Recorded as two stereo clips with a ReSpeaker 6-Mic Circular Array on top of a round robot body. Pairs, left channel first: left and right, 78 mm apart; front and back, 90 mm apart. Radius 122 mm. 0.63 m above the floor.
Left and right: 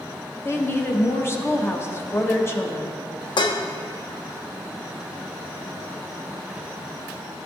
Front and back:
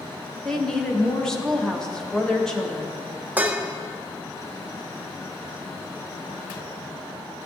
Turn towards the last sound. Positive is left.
turn(degrees=105)